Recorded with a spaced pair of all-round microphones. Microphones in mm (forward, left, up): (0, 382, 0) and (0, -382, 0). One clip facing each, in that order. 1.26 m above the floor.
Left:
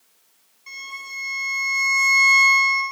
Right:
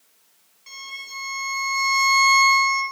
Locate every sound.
0.7 s a violin: 15° right (ahead or behind), 3.5 m